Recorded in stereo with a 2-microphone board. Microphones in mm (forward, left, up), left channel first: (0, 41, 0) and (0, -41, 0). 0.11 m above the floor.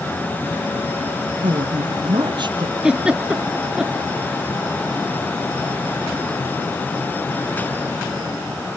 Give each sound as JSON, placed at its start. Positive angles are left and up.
{"t": 1.4, "sound": "a woman speaking", "side_deg": -65, "distance_m": 3.0}
{"t": 2.8, "sound": "a giggle", "side_deg": -10, "distance_m": 1.0}